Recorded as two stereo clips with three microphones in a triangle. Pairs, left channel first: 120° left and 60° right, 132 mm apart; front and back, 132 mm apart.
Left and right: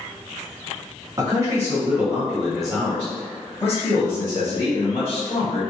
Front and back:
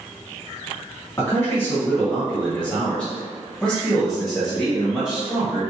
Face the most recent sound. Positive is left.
turn(degrees=95)